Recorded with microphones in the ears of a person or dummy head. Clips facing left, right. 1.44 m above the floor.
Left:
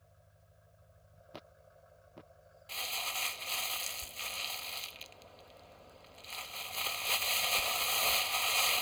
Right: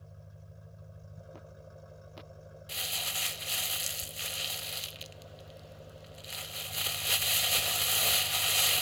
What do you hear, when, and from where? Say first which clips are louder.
0.0 s an engine running: right 11 dB; 55° right (ahead or behind)
2.7 s crumpling: left 1 dB; 15° right (ahead or behind)